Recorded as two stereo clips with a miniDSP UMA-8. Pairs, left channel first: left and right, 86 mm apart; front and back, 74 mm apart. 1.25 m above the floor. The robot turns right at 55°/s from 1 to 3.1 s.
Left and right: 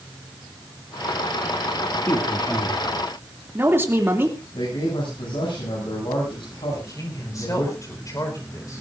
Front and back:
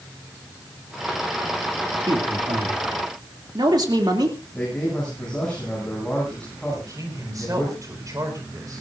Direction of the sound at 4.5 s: 80° left.